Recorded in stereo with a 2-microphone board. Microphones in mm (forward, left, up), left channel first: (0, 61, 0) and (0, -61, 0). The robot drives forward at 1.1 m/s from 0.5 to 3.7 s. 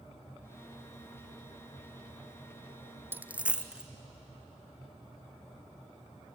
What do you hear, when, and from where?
3.1 s a dropped coin: 15° right (ahead or behind), 0.6 m; by 3.9 s 10° right (ahead or behind), 1.2 m